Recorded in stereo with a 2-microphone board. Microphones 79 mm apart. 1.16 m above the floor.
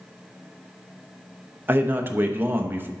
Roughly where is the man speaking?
Right.